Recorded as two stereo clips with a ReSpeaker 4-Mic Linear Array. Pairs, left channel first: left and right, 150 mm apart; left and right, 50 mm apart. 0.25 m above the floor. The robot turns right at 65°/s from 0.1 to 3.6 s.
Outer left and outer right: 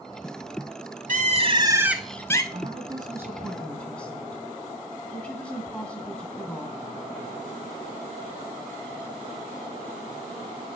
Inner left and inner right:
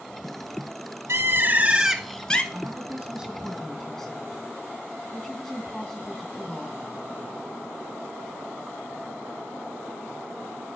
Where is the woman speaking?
55° right, 2 m; by 6.8 s 15° left, 2 m.